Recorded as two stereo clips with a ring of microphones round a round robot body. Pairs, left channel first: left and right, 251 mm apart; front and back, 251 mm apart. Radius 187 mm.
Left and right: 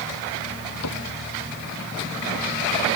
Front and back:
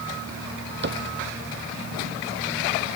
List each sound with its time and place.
0.8 s a cupboard door: 135° left